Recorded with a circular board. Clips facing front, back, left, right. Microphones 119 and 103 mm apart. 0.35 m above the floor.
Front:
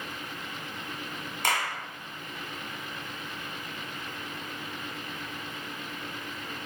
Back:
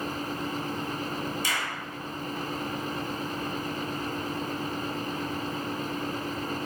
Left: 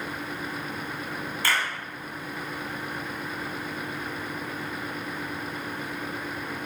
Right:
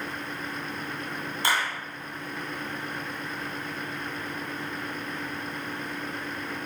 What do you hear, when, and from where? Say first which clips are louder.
1.4 s a clap: front 3 dB, right 1 dB; 25° right, 3 m